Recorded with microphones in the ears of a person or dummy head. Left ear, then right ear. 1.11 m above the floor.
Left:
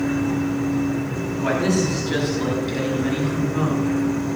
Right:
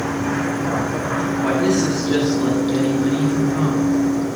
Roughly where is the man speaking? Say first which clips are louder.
Right 1 dB; centre.